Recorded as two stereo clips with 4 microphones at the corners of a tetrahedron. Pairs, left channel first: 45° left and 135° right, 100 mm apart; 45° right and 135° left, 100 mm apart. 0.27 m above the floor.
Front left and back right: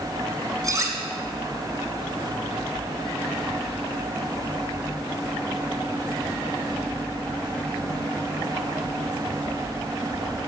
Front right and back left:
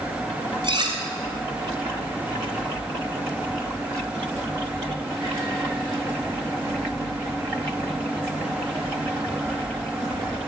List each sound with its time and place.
0.6 s cutlery clinking: 175° left, 2 m